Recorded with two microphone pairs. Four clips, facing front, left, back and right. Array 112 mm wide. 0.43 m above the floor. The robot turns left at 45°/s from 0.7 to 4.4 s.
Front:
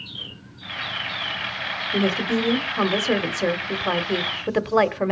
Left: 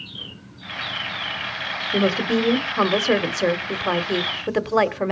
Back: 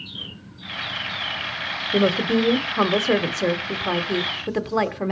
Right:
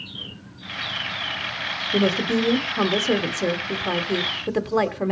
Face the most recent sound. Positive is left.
turn(degrees=50)